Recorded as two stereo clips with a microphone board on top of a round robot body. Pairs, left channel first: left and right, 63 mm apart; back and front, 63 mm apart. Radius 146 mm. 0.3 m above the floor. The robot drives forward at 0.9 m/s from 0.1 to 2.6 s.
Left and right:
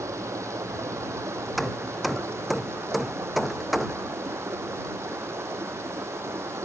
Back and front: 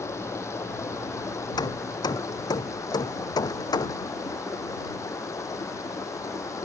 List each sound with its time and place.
0.0 s running water: 135° right; by 6.7 s 140° right
1.6 s hammering: straight behind